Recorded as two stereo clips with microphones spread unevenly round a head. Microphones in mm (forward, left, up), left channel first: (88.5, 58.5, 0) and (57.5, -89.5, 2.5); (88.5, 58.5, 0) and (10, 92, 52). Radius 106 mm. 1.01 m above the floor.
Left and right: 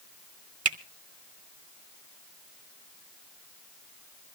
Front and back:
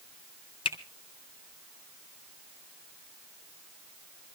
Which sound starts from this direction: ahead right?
A finger snap, at 0.7 s.